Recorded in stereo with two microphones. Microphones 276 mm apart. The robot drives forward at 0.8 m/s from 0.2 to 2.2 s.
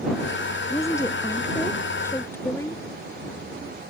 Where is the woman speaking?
10° left (ahead or behind).